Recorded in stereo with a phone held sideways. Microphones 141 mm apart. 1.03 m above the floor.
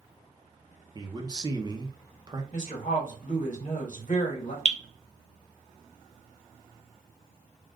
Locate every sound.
0.9 s a man speaking: 30° right (ahead or behind), 0.7 m
2.5 s a woman speaking: 60° left (ahead or behind), 1.4 m
4.7 s dripping: 55° left (ahead or behind), 0.8 m